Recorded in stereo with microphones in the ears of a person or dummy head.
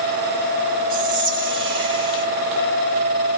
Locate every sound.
0.9 s whispering: 25° right (ahead or behind), 1.3 m